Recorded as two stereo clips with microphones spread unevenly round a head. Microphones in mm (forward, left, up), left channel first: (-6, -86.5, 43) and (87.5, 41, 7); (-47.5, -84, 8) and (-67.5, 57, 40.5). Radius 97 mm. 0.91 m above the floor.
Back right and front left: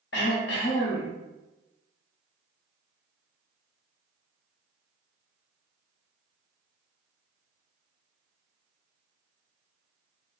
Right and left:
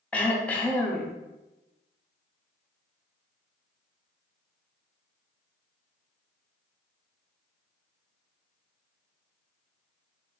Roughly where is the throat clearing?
Behind.